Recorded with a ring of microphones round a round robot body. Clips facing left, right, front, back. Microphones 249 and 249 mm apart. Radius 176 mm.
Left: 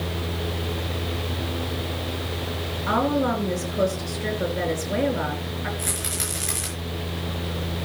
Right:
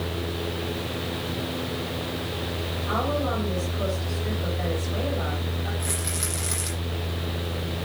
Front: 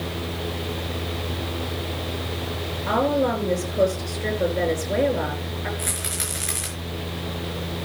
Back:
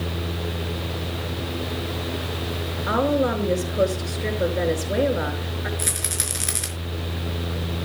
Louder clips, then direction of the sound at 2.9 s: Left 6 dB, even; 100° left.